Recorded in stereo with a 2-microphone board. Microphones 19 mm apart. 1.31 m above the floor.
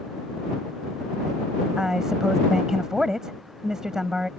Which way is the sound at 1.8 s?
25° right (ahead or behind).